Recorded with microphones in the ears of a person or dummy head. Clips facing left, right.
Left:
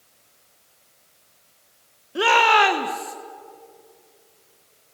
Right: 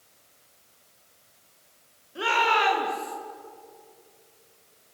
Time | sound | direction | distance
2.1 | a shout | 65° left (ahead or behind) | 1.6 m